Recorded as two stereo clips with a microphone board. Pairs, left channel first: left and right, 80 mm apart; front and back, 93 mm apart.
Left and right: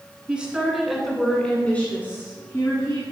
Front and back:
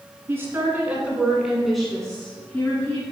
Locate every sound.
0.3 s a woman speaking: 150° right, 1.6 m; by 3.0 s 60° left, 1.9 m